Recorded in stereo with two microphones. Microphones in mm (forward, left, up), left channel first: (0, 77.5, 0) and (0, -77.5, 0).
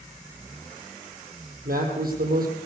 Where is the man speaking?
70° right (ahead or behind), 3.5 m.